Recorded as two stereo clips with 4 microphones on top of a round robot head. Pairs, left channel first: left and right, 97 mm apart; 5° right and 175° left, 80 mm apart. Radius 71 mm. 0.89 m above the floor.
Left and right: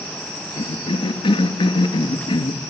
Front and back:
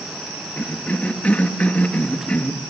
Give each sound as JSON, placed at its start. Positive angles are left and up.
{"t": 0.6, "sound": "a cough", "azimuth_deg": 65, "distance_m": 1.7}